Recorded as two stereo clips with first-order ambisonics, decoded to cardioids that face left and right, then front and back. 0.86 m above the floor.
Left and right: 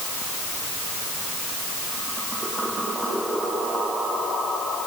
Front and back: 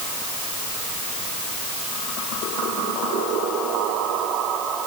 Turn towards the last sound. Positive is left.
No sound to turn to.